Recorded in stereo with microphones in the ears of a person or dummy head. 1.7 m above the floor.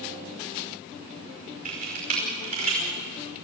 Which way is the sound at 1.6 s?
50° right (ahead or behind).